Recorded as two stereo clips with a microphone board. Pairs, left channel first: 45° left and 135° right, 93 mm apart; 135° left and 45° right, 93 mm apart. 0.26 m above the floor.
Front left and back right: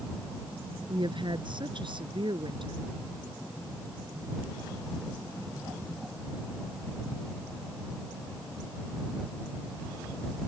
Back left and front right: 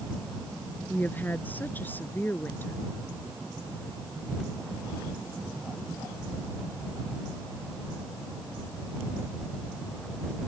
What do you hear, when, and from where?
0.9 s a woman speaking: 155° right